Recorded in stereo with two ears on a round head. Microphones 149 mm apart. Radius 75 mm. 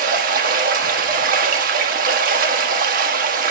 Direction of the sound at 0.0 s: 55° right (ahead or behind).